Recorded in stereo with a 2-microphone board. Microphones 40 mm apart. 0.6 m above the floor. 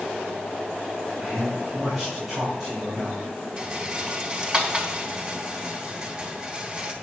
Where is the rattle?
25° right (ahead or behind), 1.3 m.